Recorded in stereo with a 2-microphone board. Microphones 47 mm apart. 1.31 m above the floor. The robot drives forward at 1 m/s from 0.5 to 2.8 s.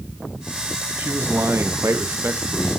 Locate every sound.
1.0 s a man speaking: 50° right (ahead or behind), 1.4 m